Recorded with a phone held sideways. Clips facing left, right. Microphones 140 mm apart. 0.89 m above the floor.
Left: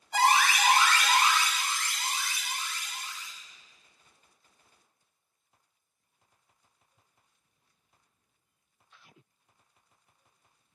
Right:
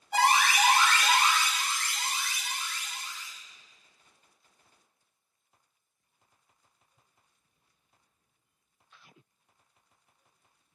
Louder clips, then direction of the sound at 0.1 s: Even; 60° right (ahead or behind).